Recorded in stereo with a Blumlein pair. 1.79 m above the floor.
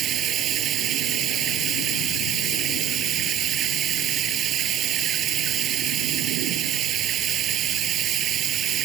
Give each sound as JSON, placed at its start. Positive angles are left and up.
{"t": 0.0, "sound": "running water", "azimuth_deg": -30}